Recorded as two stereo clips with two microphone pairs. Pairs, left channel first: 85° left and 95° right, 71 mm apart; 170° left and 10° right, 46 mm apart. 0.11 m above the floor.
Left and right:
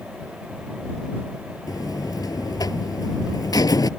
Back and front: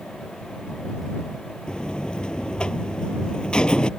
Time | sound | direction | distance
1.7 | a buzzer | 100° left | ?